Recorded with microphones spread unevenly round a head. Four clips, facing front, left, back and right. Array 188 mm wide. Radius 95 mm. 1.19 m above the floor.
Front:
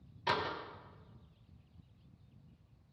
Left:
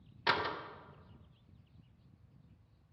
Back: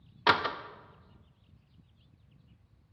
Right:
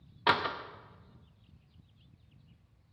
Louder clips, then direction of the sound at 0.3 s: Right 5 dB, back 8 dB; 150° right.